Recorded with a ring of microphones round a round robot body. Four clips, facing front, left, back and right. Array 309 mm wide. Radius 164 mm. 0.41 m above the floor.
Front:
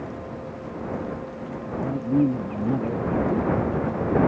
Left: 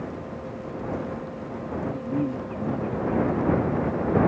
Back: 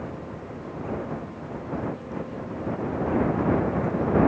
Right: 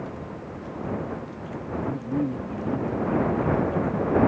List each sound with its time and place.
1.8 s a man speaking: straight ahead